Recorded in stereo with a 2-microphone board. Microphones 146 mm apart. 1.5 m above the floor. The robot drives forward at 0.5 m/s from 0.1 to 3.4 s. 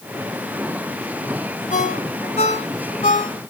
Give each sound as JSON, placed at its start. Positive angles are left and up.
{"t": 1.7, "sound": "a ringtone", "side_deg": 55, "distance_m": 3.5}